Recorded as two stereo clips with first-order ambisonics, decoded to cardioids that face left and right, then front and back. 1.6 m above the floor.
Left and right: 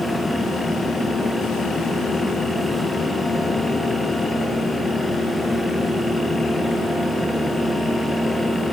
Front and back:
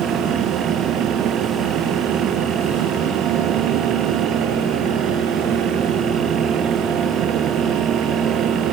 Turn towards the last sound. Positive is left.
No sound to turn to.